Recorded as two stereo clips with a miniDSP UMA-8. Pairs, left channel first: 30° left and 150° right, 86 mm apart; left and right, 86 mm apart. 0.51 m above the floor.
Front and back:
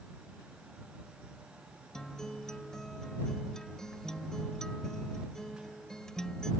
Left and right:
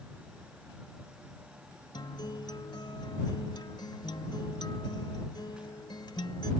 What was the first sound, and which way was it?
A guitar, 110° left.